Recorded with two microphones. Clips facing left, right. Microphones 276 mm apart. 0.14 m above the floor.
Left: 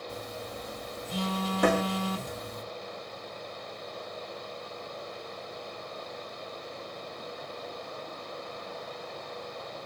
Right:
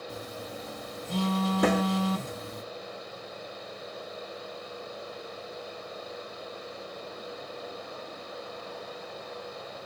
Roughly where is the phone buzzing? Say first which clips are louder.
Even; right.